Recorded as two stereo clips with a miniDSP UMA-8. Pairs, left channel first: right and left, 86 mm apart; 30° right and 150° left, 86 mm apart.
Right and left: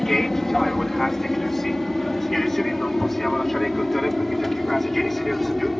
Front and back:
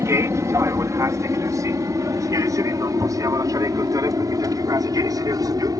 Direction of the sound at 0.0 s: 175° right.